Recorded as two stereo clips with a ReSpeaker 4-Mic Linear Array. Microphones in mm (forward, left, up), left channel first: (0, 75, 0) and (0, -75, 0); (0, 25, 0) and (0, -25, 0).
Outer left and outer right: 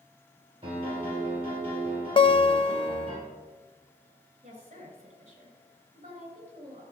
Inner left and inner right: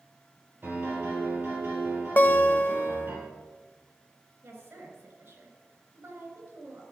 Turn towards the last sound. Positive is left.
turn(degrees=-50)  # may be behind; listen again after turning